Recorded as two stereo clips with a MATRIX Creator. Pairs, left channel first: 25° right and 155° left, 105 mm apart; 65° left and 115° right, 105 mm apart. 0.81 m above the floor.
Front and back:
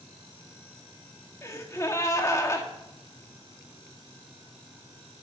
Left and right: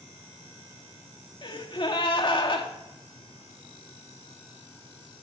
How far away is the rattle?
No rattle in this recording.